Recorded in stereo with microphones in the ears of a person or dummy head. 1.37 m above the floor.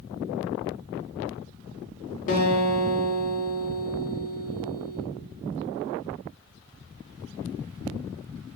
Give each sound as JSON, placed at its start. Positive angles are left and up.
{"t": 2.3, "sound": "a guitar", "side_deg": 40, "distance_m": 0.6}